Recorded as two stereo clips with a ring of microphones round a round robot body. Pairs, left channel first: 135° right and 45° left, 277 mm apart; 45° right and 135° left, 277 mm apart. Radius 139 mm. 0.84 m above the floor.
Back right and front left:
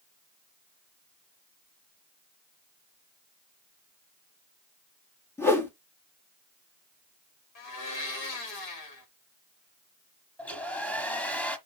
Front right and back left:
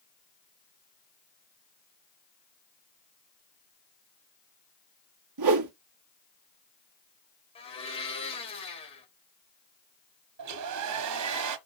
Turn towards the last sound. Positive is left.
turn(degrees=140)